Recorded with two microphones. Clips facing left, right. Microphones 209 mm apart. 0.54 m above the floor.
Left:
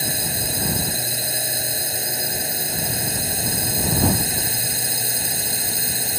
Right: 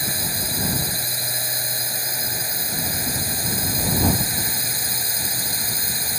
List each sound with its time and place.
0.0 s a drone: 20° left (ahead or behind)